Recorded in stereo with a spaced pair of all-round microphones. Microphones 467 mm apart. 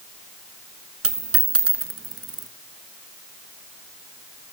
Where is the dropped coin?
30° right (ahead or behind), 0.9 m.